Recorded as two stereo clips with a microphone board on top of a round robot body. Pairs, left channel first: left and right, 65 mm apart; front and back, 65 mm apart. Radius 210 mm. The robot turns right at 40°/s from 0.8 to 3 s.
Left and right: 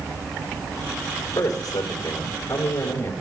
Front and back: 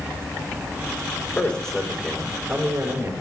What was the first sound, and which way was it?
A man speaking, 65° left.